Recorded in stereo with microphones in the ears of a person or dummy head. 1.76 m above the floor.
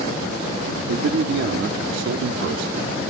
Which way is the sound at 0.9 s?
60° right (ahead or behind).